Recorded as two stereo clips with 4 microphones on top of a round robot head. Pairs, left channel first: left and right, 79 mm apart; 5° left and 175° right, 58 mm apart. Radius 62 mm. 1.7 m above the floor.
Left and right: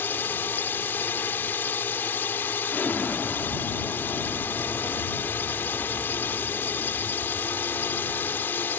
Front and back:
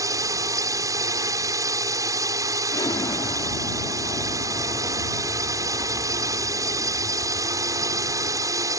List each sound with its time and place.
0.0 s a drone: 160° left
2.7 s an explosion: 20° left